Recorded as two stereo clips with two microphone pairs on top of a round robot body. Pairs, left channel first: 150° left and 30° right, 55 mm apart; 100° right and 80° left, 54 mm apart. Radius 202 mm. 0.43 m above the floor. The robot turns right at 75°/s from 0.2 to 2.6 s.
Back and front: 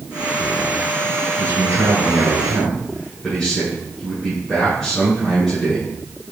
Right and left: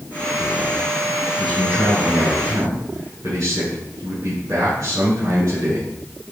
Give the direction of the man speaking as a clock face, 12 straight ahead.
1 o'clock.